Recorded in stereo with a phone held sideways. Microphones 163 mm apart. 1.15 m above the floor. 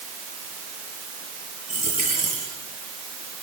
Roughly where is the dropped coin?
Right.